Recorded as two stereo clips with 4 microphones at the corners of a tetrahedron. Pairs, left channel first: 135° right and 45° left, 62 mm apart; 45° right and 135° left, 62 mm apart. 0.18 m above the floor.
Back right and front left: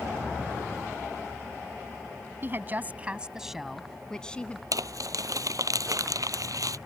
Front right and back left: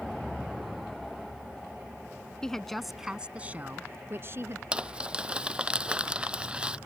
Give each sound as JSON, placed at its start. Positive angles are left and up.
{"t": 2.4, "sound": "a woman speaking", "azimuth_deg": 25}
{"t": 4.7, "sound": "crumpling", "azimuth_deg": 60}